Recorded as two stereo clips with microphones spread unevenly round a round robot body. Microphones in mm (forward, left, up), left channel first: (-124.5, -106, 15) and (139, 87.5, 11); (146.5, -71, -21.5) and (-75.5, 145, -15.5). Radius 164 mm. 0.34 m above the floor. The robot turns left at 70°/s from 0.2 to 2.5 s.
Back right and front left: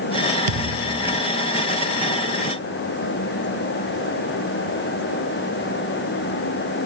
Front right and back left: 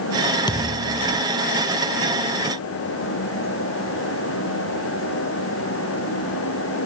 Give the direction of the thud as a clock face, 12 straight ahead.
11 o'clock.